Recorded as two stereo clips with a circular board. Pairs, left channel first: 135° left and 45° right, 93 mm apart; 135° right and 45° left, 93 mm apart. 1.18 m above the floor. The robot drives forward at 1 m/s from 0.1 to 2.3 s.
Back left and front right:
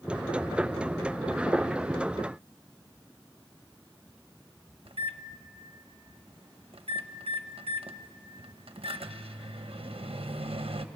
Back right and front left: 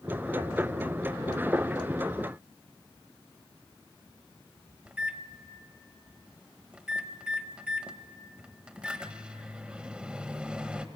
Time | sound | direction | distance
4.8 | a microwave | 35° right | 1.0 m